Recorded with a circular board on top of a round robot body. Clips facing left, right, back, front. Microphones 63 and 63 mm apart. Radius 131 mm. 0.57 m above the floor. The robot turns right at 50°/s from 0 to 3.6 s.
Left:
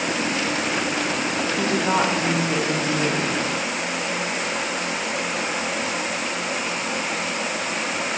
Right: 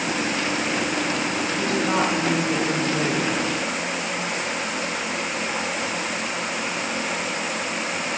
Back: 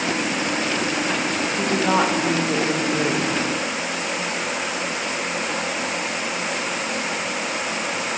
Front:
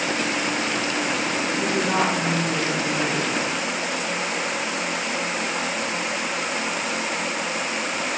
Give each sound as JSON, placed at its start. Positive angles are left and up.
{"t": 1.6, "sound": "a woman speaking", "azimuth_deg": 140, "distance_m": 2.5}